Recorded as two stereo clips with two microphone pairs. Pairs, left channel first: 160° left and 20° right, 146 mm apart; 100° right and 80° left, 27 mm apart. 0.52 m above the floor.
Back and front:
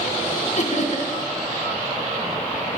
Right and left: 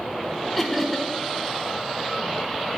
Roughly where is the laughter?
Behind.